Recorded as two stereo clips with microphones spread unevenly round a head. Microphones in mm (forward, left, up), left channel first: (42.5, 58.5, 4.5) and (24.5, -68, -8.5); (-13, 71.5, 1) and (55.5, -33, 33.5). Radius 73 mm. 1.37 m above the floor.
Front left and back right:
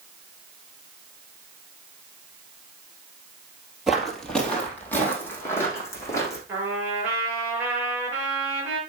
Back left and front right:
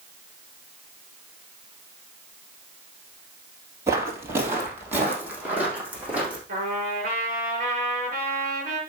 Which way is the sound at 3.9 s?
10° right.